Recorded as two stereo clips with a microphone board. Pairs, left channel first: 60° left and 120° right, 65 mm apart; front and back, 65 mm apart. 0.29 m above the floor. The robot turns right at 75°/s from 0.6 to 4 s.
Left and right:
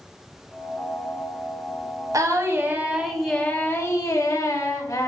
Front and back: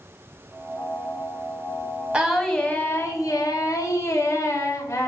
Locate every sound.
2.1 s singing: 110° right, 0.6 m; by 5.1 s 30° left, 0.6 m